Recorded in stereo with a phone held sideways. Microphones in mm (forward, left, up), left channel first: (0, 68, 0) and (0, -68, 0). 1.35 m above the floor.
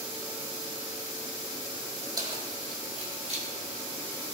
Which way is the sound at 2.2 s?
35° right (ahead or behind).